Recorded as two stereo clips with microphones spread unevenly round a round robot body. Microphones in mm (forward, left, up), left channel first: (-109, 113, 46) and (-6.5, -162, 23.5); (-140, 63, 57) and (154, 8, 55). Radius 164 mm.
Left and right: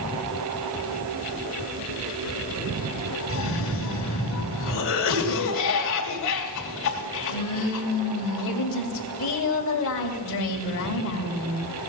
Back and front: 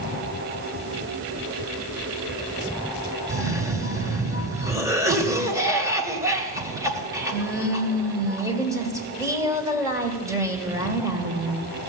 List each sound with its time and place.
3.3 s a cough: 65° left, 2.5 m